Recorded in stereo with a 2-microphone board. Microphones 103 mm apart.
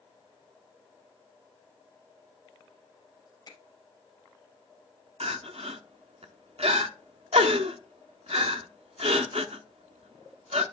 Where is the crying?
80° right, 0.7 m.